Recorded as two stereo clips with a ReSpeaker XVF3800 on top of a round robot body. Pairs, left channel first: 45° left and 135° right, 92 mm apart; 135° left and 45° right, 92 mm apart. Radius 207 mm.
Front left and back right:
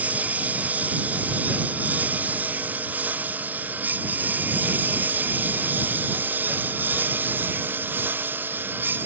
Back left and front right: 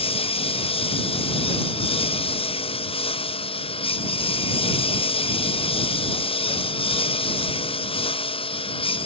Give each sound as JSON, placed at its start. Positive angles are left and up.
{"t": 0.0, "sound": "a lawn mower", "azimuth_deg": 150}